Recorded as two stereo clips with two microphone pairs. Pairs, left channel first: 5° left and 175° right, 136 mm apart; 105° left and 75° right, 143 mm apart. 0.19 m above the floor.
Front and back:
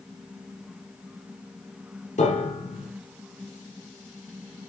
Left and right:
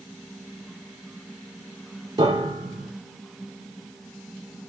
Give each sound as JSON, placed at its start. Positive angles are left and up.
{"t": 2.2, "sound": "a piano", "azimuth_deg": -25, "distance_m": 4.0}